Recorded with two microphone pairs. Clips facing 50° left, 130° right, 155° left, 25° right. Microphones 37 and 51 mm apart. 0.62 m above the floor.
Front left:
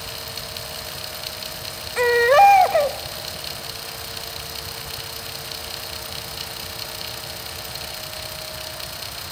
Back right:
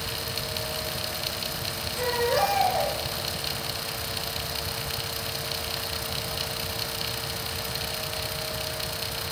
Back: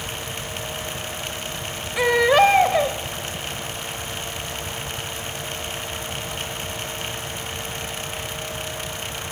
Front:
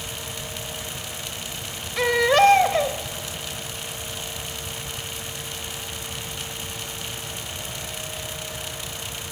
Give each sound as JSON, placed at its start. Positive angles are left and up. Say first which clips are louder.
{"t": 2.0, "sound": "a baby crying", "louder": "front left 11 dB, back 2 dB", "azimuth_deg": 75, "distance_m": 1.7}